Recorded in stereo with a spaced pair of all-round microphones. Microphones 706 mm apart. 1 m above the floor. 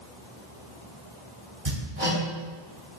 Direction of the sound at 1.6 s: 65° right (ahead or behind).